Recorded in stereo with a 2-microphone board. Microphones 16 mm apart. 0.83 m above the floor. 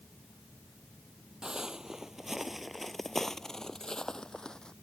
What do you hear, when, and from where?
1.4 s footsteps: 45° right (ahead or behind); by 4.7 s 50° left (ahead or behind)